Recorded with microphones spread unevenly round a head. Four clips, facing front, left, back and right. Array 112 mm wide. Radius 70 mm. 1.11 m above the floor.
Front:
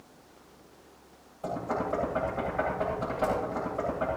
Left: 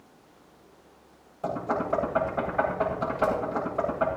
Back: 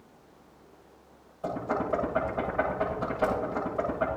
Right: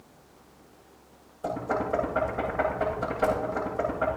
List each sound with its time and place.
1.4 s knocking: 85° left, 8 m